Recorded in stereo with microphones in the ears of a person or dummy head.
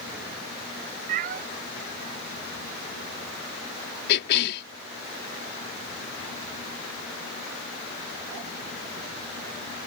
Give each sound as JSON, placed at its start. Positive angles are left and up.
{"t": 1.1, "sound": "a cat meowing", "side_deg": -45}
{"t": 4.1, "sound": "a cough", "side_deg": 55}